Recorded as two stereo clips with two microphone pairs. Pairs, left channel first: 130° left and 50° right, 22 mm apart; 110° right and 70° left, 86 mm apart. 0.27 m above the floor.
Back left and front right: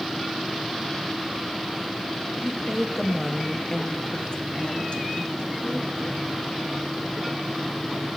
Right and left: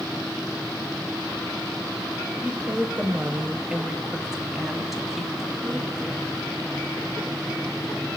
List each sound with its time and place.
2.4 s a woman speaking: 15° left, 1.1 m; by 6.6 s 160° left, 3 m